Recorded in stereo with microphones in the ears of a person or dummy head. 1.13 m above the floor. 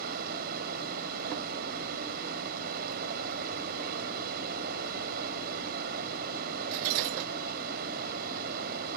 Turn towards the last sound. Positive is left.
turn(degrees=-50)  # may be behind; listen again after turning